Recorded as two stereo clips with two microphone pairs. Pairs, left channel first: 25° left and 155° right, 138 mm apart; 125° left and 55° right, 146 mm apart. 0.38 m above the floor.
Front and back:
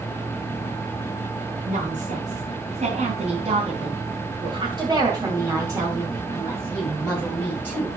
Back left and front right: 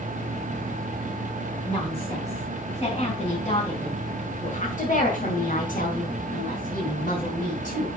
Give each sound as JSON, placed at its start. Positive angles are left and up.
{"t": 1.7, "sound": "a woman speaking", "azimuth_deg": -165, "distance_m": 3.5}